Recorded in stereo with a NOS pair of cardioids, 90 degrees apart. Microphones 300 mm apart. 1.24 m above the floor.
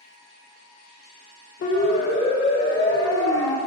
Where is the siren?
55° left, 5 m; by 3.6 s 60° left, 3 m.